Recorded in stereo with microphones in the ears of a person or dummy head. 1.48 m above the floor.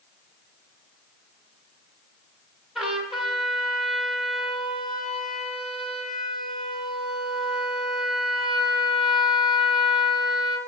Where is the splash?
No splash in this recording.